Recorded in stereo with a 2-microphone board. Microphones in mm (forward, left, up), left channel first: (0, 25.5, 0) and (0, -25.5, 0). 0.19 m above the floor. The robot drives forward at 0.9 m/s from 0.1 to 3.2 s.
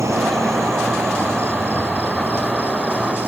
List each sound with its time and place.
0.0 s an insect: 70° right (ahead or behind); by 3.3 s 35° right (ahead or behind)